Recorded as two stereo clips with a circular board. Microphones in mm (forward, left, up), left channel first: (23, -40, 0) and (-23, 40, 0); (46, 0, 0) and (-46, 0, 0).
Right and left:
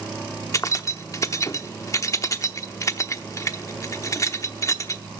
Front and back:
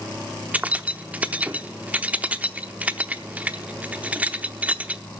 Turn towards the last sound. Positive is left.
turn(degrees=-110)